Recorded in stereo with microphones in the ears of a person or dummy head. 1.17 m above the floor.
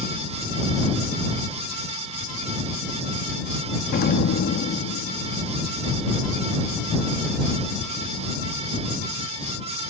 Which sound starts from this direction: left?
An explosion, at 3.9 s.